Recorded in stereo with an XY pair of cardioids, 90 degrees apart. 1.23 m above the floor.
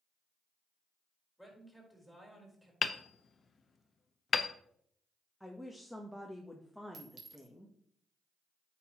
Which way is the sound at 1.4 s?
Straight ahead.